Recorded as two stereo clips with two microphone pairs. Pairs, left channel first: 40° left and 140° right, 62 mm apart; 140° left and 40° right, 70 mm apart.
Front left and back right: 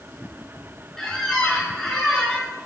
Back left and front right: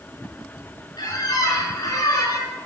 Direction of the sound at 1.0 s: 120° left.